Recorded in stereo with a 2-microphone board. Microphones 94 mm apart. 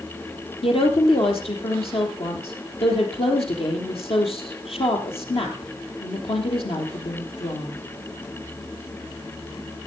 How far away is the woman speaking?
About 3.5 m.